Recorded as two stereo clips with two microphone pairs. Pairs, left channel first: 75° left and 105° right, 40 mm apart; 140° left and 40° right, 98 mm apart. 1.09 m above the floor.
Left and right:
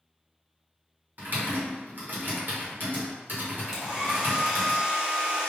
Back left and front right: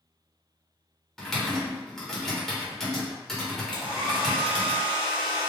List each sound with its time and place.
1.2 s typing on a keyboard: 140° right, 1.5 m
3.7 s a hair dryer: 35° right, 1.9 m